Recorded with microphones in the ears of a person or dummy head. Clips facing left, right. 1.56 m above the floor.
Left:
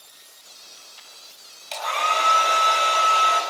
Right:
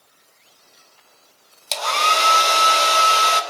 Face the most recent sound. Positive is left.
turn(degrees=-55)  # may be behind; listen again after turning